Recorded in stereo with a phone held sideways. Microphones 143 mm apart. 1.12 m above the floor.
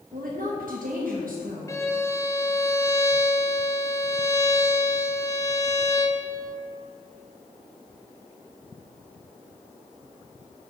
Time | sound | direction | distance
0.1 | a woman speaking | 80° right | 1.1 m
1.7 | a violin | 20° left (ahead or behind) | 0.6 m